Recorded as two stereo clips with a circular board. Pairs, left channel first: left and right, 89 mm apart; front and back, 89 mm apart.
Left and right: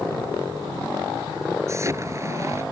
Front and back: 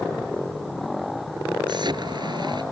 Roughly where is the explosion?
Behind right.